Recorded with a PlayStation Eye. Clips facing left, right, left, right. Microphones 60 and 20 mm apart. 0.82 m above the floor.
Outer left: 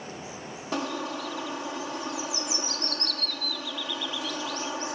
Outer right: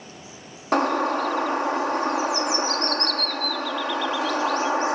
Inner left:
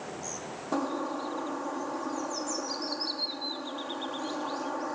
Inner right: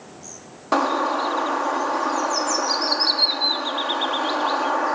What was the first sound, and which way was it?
A bird, 60° right (ahead or behind).